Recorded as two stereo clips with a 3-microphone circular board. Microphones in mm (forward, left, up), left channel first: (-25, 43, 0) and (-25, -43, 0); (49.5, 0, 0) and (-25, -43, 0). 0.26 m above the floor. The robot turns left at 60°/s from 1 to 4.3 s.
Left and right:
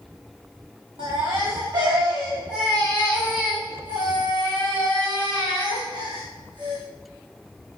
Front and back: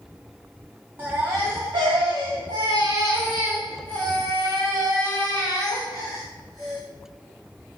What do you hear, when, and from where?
1.0 s a baby crying: 80° right, 7.5 m; by 6.8 s 80° left, 7.5 m